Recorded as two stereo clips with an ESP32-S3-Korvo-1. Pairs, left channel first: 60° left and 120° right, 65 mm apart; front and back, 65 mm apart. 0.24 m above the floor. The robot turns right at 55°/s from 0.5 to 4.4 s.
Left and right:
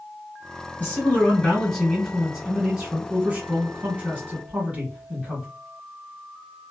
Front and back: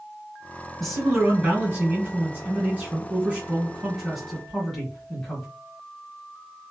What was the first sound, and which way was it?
A man speaking, 80° left.